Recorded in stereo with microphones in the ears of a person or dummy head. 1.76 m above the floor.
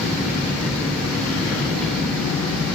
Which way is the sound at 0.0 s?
5° left (ahead or behind).